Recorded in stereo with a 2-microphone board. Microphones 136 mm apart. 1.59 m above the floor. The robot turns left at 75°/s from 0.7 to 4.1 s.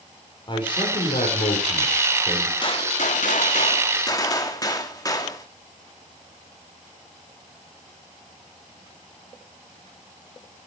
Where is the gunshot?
140° left, 2.5 m; by 5.5 s 30° left, 2.5 m.